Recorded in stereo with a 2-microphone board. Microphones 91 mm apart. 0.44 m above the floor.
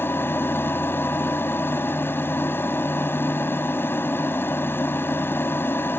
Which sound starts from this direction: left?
An aircraft, at 0.0 s.